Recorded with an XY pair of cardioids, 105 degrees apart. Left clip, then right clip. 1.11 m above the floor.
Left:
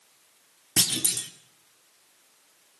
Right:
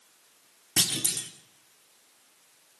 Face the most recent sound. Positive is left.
turn(degrees=20)